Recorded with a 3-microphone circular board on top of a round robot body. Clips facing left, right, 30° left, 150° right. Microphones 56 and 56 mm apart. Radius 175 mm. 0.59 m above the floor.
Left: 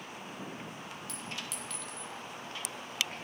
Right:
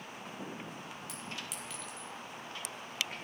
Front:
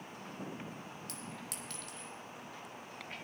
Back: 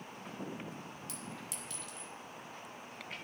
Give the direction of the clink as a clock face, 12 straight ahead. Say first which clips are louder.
Left 2 dB, even; 12 o'clock.